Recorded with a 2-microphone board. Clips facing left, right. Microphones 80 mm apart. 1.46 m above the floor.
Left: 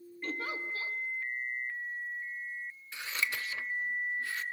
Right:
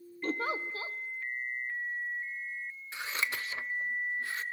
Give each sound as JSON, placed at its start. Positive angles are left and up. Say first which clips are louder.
{"t": 0.2, "sound": "a giggle", "louder": "right 4 dB", "side_deg": -40, "distance_m": 1.0}
{"t": 2.9, "sound": "scissors", "louder": "right 1 dB", "side_deg": -30, "distance_m": 0.6}